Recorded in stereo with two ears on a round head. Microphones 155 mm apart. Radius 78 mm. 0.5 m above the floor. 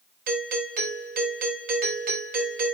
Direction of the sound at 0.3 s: 55° right (ahead or behind).